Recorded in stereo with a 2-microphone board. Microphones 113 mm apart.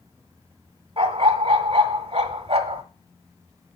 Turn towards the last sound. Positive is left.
turn(degrees=-50)  # may be behind; listen again after turning